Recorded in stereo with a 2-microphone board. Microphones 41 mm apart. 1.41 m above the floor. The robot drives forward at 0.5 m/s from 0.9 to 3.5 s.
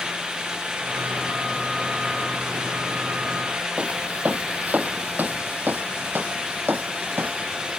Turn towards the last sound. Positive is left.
turn(degrees=-65)  # may be behind; listen again after turning